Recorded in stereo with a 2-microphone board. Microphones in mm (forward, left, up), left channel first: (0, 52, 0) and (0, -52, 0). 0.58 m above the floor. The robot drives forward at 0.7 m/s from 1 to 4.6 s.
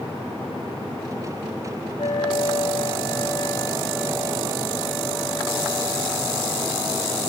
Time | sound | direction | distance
2.0 | a flute | 85° left | 0.7 m